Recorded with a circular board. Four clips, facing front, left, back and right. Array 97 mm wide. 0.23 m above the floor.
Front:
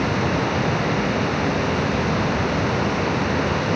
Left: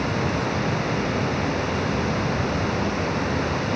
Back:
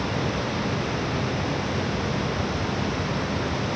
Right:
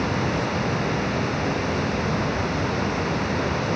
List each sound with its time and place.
Only background noise.